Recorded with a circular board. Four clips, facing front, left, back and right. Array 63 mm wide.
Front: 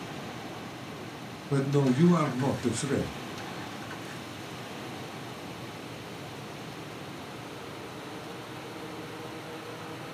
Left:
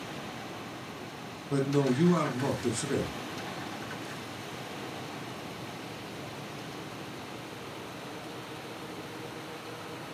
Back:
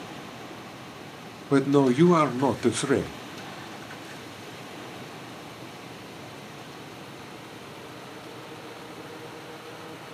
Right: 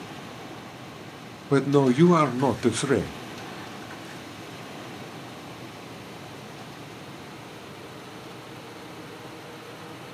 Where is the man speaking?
130° right, 0.7 m.